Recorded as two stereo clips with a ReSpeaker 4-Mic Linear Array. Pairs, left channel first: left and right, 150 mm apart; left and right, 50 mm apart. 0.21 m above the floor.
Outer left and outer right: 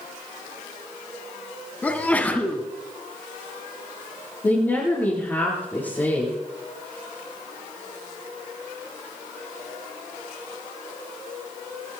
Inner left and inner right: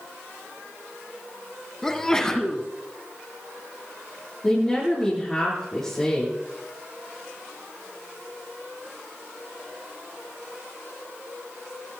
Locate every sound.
1.8 s a sneeze: 10° left (ahead or behind), 1.7 m
4.4 s a woman speaking: 15° left (ahead or behind), 8 m